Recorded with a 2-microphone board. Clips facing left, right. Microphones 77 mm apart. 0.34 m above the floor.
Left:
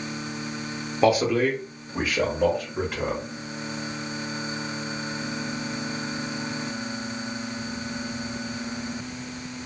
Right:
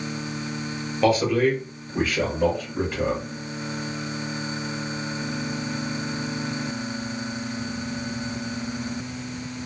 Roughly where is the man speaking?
Centre.